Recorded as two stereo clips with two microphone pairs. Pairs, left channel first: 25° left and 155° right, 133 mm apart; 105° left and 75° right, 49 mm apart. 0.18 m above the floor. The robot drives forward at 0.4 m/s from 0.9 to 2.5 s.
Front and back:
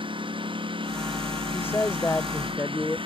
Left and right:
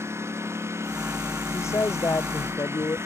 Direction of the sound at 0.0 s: 100° right.